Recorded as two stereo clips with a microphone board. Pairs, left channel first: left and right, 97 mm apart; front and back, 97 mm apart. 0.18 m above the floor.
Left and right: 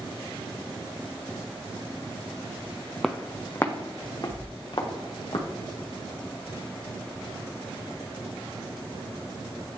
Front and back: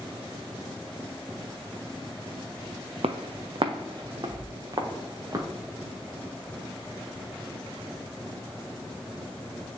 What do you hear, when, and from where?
3.0 s footsteps: straight behind, 0.5 m; by 5.5 s 125° left, 1.9 m